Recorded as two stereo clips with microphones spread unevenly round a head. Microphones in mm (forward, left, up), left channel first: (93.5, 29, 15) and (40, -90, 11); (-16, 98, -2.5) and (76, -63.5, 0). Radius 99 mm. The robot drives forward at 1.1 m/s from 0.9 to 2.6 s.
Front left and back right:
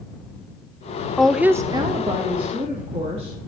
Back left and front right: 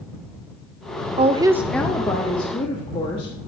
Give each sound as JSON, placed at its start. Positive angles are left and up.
{"t": 1.2, "sound": "a woman speaking", "azimuth_deg": -20, "distance_m": 0.6}